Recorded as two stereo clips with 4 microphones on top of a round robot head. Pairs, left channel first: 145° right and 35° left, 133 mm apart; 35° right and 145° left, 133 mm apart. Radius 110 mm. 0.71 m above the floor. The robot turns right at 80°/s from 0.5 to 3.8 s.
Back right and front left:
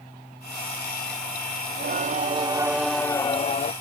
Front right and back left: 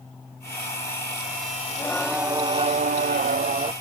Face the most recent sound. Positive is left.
turn(degrees=-165)